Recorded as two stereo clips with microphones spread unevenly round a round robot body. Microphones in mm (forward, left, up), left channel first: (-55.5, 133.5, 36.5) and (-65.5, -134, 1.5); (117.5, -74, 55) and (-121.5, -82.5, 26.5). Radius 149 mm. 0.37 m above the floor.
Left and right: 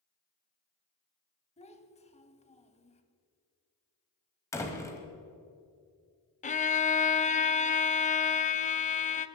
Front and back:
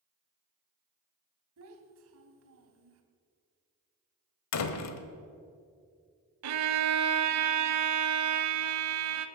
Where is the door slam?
5° left, 1.2 m.